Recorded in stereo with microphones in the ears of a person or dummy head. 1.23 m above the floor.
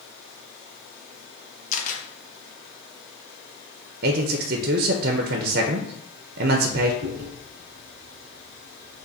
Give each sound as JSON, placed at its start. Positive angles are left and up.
{"t": 1.7, "sound": "a camera shutter", "side_deg": 40, "distance_m": 0.8}
{"t": 4.0, "sound": "a man speaking", "side_deg": -50, "distance_m": 0.5}
{"t": 7.0, "sound": "chewing", "side_deg": -30, "distance_m": 1.2}